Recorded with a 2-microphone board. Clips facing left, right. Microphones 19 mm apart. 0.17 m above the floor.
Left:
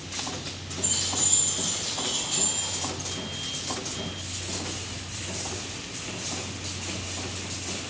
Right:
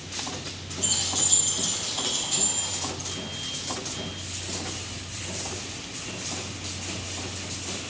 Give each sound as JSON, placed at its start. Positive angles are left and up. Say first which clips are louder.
{"t": 0.8, "sound": "keys jangling", "louder": "right 2 dB", "side_deg": -50, "distance_m": 1.6}